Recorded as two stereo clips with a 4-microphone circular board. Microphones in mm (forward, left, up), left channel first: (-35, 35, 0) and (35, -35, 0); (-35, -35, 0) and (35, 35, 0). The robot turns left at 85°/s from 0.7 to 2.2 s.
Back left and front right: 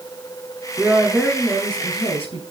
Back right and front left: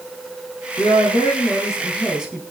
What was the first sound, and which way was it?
A woman speaking, 110° right.